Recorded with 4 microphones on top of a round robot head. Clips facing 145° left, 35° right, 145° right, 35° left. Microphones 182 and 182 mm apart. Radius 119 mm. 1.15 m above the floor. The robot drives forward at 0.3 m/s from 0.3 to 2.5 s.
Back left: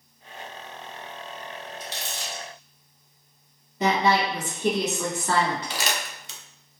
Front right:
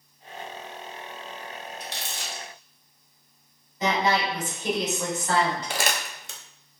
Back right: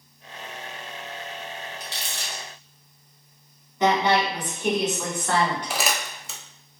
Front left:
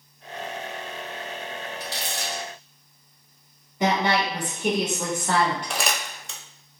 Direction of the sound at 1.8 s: 70° right.